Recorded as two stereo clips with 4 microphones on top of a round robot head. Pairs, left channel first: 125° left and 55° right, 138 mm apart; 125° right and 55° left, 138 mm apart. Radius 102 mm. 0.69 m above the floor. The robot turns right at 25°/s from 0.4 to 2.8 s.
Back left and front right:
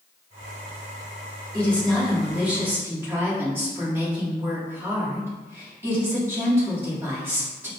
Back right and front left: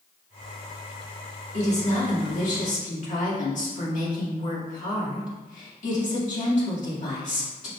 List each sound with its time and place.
1.5 s a woman speaking: 155° right, 1.6 m; by 7.7 s 125° right, 1.6 m